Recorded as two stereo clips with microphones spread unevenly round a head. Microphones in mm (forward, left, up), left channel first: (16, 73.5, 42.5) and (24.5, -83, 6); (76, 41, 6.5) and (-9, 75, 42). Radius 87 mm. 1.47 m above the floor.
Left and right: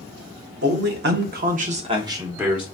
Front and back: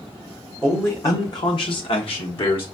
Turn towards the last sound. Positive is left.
turn(degrees=-5)